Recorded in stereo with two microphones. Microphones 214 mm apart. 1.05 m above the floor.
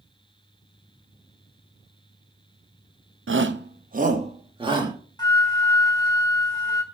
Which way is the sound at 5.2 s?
20° left (ahead or behind).